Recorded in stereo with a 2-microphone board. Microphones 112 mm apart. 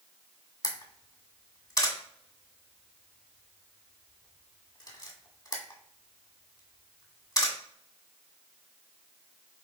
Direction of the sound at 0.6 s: 35° left (ahead or behind).